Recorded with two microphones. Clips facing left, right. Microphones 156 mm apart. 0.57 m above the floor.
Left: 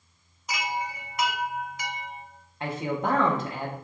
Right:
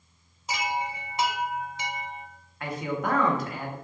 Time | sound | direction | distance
0.5 | a chime | 25° right (ahead or behind) | 0.7 m
2.6 | a man speaking | 25° left (ahead or behind) | 1.0 m